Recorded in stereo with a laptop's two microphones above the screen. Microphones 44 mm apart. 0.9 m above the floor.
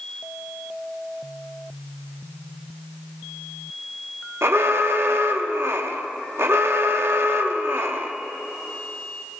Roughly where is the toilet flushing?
No toilet flushing in this recording.